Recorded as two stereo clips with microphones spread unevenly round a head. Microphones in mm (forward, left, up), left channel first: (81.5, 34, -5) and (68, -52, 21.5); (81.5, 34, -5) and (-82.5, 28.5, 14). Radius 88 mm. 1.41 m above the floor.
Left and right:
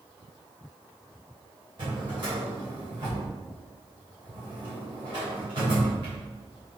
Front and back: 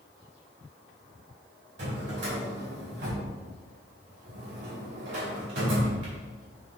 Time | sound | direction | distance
1.8 | a drawer | 155° right | 3 m